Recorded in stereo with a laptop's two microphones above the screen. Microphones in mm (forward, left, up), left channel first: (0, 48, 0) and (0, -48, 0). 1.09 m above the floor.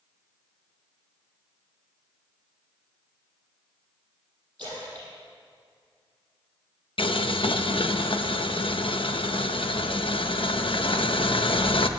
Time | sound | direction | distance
4.6 | a splash | 15° left (ahead or behind) | 6 m
7.0 | boiling | 70° left (ahead or behind) | 0.7 m